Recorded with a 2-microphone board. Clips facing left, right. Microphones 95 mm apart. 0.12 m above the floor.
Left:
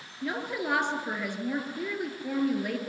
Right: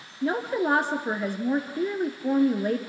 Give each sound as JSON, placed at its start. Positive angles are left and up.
{"t": 0.2, "sound": "a woman speaking", "side_deg": -35, "distance_m": 2.0}